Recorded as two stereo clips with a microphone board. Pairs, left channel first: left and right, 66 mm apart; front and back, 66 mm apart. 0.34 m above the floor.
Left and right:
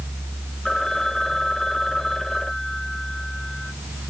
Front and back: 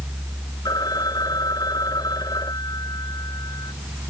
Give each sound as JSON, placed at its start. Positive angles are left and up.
{"t": 0.7, "sound": "a phone ringing", "azimuth_deg": 5}